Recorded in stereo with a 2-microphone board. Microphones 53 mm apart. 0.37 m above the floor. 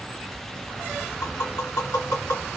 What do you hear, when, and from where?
1.2 s tapping: 65° left (ahead or behind), 1.6 m